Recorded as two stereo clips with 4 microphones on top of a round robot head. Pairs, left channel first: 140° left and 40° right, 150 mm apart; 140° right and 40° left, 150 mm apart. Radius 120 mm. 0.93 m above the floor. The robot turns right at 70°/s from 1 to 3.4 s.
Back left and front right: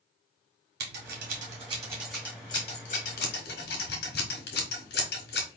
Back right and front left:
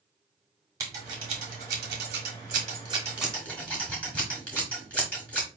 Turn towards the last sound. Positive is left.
turn(degrees=140)